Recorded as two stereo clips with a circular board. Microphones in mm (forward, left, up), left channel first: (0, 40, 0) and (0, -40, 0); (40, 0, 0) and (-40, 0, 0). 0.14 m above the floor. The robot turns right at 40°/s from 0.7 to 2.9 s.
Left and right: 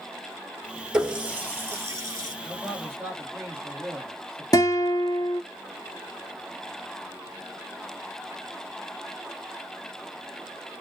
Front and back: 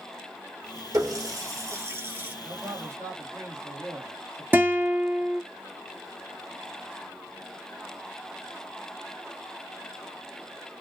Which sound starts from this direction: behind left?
A guitar, at 4.5 s.